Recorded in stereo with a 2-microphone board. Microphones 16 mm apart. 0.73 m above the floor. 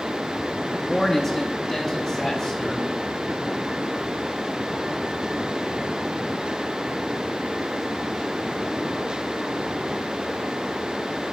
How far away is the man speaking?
About 0.6 m.